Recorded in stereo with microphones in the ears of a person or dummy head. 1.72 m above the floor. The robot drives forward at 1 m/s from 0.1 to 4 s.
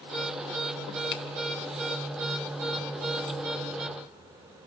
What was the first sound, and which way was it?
A finger snap, 60° left (ahead or behind).